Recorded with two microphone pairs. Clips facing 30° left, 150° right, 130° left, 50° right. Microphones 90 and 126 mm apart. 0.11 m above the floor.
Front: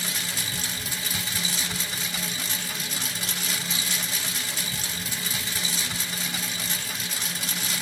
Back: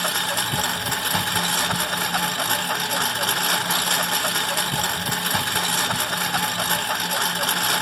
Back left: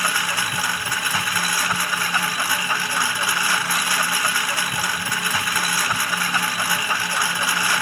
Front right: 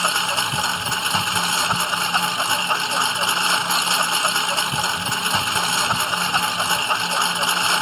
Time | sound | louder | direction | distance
0.0 | a lawn mower | back 9 dB, front right 2 dB | 120° right | ?